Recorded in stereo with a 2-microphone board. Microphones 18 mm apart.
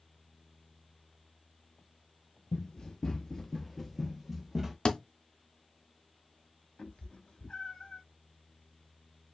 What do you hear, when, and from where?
2.5 s running footsteps: 45° left (ahead or behind), 0.9 m; by 4.8 s 25° right (ahead or behind), 1.1 m
4.8 s a thud: 50° left (ahead or behind), 0.6 m
6.8 s a cat meowing: 80° left, 0.8 m